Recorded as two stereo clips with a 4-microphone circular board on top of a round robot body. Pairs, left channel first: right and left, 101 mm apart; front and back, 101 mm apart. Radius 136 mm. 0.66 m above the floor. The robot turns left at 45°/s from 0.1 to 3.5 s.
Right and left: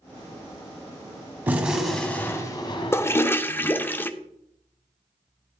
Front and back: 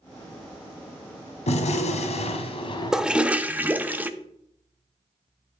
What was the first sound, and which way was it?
A gunshot, 20° left.